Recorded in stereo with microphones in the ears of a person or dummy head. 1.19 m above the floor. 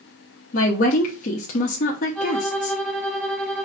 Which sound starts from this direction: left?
A woman speaking, at 0.5 s.